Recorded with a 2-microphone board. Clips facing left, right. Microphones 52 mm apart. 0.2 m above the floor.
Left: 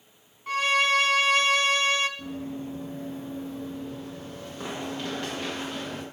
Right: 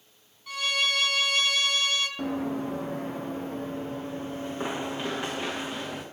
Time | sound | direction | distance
0.5 | a violin | 40° left (ahead or behind) | 0.6 m
2.2 | running footsteps | 85° right | 1.4 m